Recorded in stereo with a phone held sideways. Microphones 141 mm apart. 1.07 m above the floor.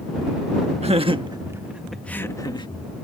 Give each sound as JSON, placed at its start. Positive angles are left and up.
{"t": 0.8, "sound": "laughter", "side_deg": -50}